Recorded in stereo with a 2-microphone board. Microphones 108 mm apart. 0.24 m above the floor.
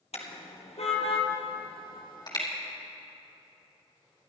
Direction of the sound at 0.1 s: 75° left (ahead or behind).